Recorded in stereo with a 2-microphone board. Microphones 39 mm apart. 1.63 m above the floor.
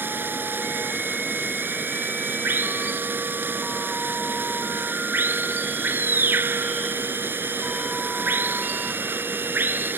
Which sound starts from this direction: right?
Running water, at 0.0 s.